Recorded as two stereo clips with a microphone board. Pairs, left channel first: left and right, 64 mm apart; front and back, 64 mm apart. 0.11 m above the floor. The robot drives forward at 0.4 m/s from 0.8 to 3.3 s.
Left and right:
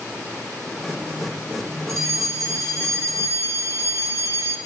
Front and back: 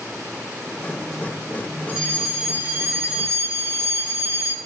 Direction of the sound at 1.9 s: 115° right.